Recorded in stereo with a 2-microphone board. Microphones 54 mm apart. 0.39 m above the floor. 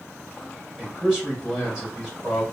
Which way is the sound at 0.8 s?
15° right (ahead or behind).